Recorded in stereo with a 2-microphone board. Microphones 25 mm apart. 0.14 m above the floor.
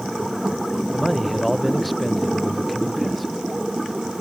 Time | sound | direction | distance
0.9 | a man speaking | centre (ahead or behind) | ?